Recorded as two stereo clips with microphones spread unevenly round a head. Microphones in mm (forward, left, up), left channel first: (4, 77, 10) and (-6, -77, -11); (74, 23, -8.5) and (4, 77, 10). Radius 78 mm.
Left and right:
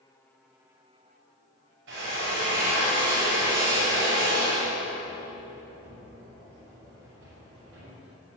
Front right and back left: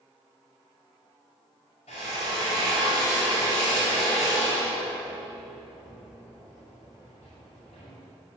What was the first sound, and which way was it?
A drill, 90° right.